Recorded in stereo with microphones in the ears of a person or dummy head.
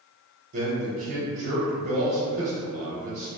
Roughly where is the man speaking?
Right.